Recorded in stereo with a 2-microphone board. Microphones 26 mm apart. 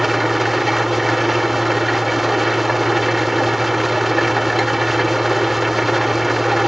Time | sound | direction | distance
0.0 | an engine running | centre (ahead or behind) | 0.9 m